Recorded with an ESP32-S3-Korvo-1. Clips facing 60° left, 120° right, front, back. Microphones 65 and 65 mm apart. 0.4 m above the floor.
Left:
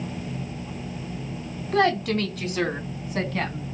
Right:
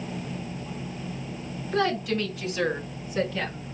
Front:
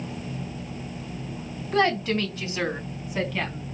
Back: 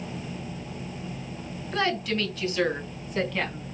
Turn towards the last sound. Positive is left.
turn(degrees=95)